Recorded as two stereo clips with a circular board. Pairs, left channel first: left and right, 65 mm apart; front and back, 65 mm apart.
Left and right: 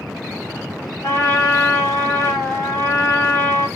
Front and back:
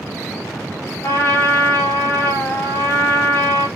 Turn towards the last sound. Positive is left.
turn(degrees=40)